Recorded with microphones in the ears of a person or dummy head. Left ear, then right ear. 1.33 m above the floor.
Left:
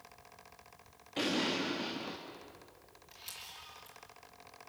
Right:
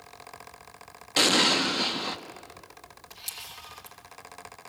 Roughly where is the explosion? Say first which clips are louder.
Right 12 dB; right.